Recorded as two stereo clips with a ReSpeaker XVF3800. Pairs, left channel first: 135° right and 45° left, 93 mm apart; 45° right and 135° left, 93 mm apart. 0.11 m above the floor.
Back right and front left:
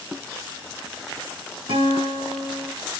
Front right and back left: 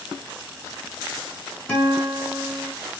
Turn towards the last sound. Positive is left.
turn(degrees=30)